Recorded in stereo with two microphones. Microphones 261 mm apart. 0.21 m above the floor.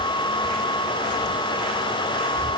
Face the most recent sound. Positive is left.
No sound to turn to.